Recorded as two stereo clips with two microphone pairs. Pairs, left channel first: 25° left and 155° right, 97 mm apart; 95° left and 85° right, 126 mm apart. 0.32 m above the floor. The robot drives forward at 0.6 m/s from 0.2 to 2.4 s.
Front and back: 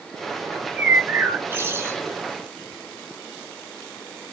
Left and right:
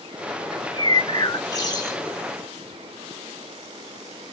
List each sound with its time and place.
0.5 s a bird: 130° left, 1.5 m; by 2.0 s 150° left, 2 m